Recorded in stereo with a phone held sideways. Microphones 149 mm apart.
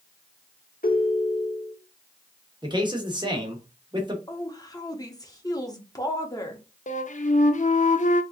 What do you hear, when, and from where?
0.8 s a ringtone: 75° left (ahead or behind), 1.4 m
2.6 s a man speaking: 30° right (ahead or behind), 1.2 m
4.3 s a woman speaking: 25° left (ahead or behind), 0.9 m
6.9 s a flute: 55° left (ahead or behind), 0.5 m